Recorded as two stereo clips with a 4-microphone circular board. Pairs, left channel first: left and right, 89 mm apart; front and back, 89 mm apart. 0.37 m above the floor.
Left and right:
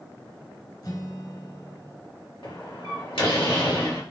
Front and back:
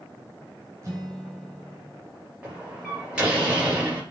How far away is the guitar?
About 3 m.